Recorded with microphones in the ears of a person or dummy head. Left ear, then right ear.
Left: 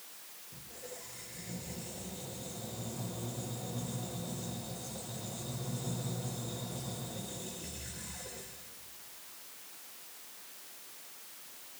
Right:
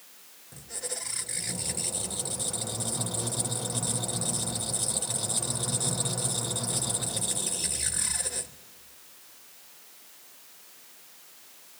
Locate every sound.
0.5 s a squeak: 60° right (ahead or behind), 0.5 m